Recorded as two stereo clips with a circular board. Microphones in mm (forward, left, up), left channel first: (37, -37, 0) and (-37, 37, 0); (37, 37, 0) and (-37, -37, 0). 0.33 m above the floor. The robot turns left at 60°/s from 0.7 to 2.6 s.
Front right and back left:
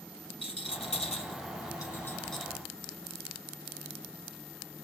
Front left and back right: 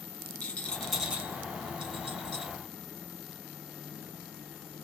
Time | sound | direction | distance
0.4 | a rattle | 35° right | 1.0 m